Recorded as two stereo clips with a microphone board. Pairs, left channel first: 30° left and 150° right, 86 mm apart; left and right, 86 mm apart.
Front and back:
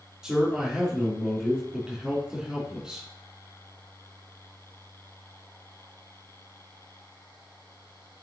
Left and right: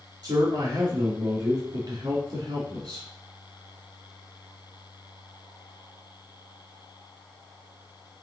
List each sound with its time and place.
0.2 s a man speaking: 70° right, 3 m